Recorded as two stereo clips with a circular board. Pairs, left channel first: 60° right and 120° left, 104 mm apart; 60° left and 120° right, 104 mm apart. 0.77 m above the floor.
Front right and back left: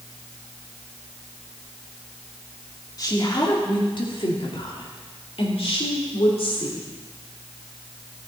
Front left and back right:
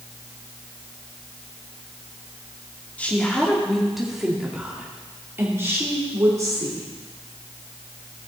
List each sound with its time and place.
3.0 s a woman speaking: 15° right, 2 m; by 6.9 s 70° right, 2.5 m